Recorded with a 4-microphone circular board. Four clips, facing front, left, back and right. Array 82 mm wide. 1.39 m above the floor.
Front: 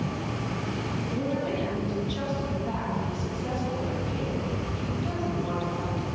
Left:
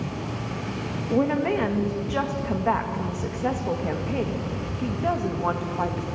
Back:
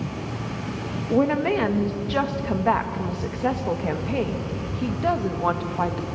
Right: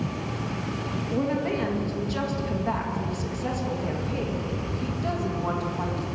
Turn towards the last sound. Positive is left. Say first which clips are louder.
# left 5 dB, back 10 dB
turn(degrees=155)